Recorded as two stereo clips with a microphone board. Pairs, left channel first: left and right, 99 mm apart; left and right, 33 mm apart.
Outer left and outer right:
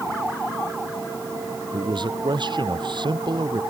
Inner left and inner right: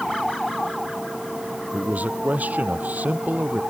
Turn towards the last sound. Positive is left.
turn(degrees=-50)  # may be behind; listen again after turning